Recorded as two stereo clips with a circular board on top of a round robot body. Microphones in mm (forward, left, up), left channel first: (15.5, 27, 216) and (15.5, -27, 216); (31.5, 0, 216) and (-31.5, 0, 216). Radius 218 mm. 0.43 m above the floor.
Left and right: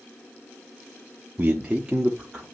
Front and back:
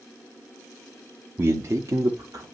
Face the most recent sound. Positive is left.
turn(degrees=-175)